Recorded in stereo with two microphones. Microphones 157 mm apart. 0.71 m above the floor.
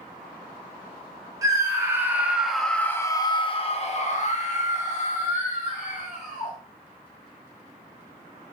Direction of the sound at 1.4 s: 20° right (ahead or behind).